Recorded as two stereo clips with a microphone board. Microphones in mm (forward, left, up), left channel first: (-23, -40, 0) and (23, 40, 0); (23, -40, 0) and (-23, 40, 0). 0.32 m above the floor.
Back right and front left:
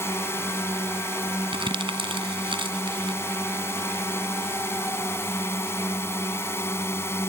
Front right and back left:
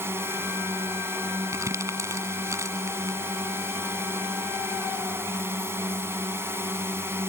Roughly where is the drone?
Behind.